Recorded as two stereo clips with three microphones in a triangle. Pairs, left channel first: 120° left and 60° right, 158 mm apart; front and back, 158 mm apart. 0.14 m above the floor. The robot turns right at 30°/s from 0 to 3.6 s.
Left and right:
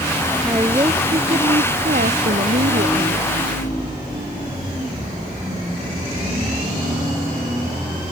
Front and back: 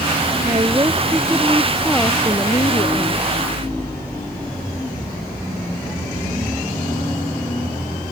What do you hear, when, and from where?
0.4 s a woman speaking: 130° right; by 3.3 s 45° right